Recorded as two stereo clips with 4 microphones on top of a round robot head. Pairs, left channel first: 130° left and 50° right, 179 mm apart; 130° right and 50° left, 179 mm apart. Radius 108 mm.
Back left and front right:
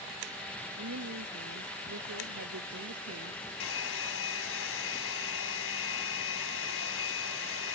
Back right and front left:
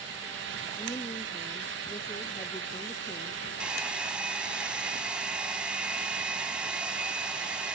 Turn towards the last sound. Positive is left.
turn(degrees=135)